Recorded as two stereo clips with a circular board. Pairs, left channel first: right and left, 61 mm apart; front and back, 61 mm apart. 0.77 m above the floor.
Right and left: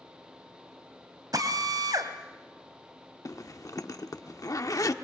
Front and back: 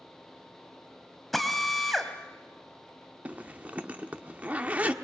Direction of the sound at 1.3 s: 90° left.